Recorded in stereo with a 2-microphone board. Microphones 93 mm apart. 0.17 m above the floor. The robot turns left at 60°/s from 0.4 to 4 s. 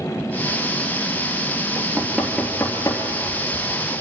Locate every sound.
1.8 s knocking: 30° right (ahead or behind), 3 m; by 3.6 s 70° left (ahead or behind), 3 m